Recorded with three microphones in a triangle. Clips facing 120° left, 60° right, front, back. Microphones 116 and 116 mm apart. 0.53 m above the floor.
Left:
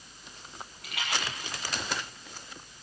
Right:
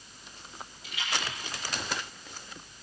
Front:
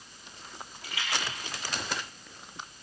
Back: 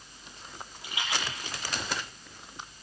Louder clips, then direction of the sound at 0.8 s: Left 1 dB, back 1 dB; 115° left.